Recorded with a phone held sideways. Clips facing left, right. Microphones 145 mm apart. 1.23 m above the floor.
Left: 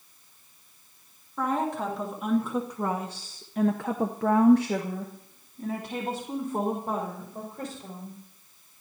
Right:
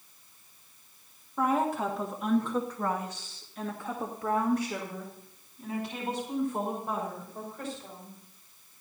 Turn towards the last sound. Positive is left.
turn(degrees=40)  # may be behind; listen again after turning